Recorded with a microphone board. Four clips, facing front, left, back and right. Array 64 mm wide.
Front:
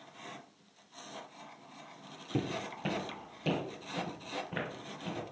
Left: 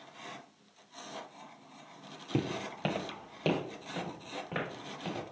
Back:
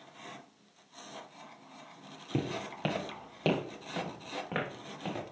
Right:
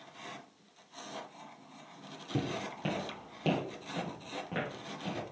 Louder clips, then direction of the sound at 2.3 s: Left 2 dB, back 1 dB; 115° left.